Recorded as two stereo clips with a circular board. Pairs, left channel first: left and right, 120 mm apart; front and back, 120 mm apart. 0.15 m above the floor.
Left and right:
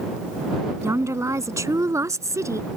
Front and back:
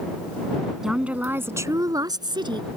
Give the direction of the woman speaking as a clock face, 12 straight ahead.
3 o'clock.